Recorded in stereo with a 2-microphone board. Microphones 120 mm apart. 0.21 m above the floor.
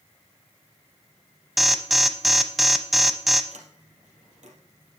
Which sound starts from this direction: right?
A sliding door, at 3.5 s.